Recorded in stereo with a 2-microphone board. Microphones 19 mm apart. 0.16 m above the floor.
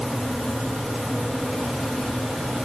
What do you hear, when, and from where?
Only background noise.